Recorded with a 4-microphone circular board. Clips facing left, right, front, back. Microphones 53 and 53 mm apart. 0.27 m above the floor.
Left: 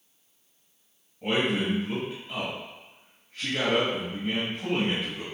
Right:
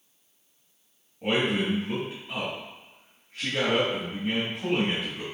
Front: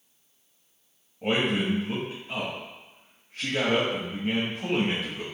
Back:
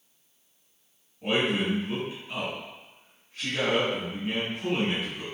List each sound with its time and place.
1.2 s a man speaking: 10° right, 1.2 m